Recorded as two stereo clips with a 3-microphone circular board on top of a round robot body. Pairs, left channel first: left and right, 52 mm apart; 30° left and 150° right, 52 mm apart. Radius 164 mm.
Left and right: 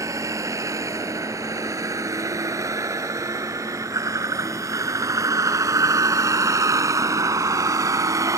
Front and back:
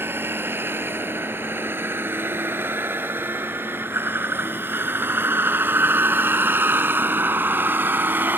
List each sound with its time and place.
0.0 s a vehicle: 105° right; by 8.4 s 100° right